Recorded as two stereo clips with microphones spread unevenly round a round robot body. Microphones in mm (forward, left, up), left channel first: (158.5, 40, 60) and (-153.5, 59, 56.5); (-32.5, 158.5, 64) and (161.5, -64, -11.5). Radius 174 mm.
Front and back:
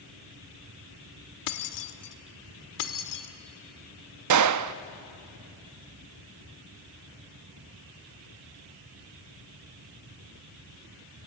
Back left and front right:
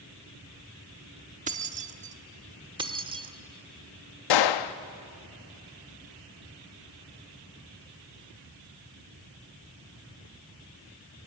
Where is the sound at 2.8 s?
25° left, 1.5 m.